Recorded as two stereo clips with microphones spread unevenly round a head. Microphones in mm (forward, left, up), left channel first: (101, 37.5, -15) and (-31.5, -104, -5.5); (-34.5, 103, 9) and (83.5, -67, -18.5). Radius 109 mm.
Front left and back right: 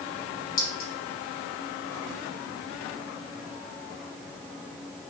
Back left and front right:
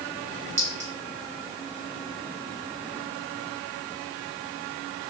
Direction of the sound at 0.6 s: 5° left.